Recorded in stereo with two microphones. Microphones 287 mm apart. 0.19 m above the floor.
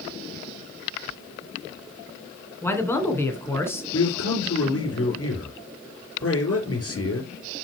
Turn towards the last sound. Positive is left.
turn(degrees=55)  # may be behind; listen again after turning